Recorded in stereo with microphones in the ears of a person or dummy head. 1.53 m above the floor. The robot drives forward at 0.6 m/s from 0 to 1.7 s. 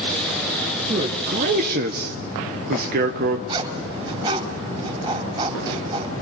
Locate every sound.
0.9 s a man speaking: 40° right (ahead or behind), 1.6 m; by 3.4 s 55° right (ahead or behind), 1.2 m
3.5 s a zipper: 25° right (ahead or behind), 4.5 m